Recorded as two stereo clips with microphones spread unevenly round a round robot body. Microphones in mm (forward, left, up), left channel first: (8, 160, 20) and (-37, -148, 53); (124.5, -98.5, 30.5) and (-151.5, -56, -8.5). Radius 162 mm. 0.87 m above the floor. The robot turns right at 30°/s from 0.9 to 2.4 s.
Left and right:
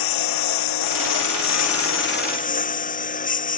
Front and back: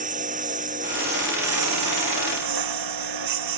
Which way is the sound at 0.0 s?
100° left.